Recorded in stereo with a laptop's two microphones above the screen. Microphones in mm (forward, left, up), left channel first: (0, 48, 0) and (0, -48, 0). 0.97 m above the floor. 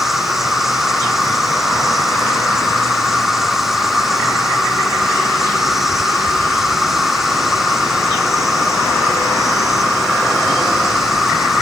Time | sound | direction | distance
0.0 | an insect | centre (ahead or behind) | ?